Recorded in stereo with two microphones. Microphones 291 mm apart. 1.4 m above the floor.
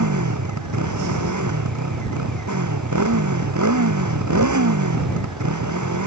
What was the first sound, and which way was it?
A motorcycle, 80° right.